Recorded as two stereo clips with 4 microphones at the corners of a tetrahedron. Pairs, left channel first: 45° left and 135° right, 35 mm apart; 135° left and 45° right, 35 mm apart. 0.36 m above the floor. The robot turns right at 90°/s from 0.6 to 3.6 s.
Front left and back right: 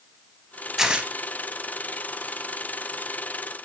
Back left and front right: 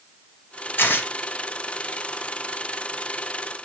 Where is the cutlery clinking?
No cutlery clinking in this recording.